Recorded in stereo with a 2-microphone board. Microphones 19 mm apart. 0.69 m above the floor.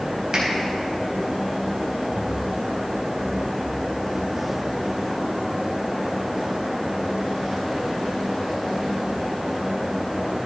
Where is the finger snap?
45° right (ahead or behind), 3 m.